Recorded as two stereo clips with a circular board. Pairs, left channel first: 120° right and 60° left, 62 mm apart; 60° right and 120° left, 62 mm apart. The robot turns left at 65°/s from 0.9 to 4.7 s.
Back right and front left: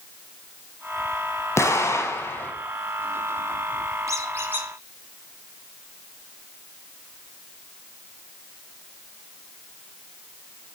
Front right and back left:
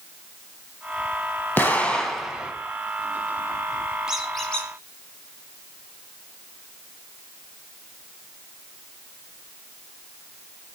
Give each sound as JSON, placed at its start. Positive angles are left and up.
{"t": 1.6, "sound": "an explosion", "azimuth_deg": -110, "distance_m": 1.4}
{"t": 4.1, "sound": "a squeak", "azimuth_deg": 45, "distance_m": 1.9}